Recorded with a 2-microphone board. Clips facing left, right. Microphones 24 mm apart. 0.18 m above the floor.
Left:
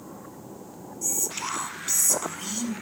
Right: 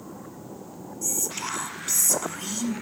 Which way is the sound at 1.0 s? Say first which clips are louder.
Even; 10° left (ahead or behind).